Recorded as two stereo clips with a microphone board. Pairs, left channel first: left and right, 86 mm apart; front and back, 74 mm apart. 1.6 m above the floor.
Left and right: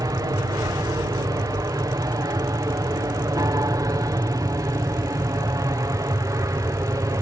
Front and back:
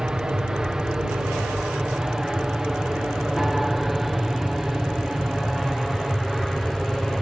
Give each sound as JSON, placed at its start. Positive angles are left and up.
{"t": 0.0, "sound": "an aircraft", "azimuth_deg": -105}